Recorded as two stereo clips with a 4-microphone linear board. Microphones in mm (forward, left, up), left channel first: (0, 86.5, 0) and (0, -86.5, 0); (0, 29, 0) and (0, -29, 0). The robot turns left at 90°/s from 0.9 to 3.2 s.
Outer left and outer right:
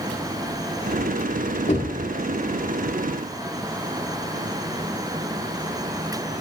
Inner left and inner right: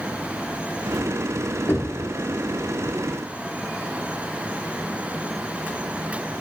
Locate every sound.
1.7 s knocking: 40° left (ahead or behind), 1.8 m; by 2.0 s 15° left (ahead or behind), 1.8 m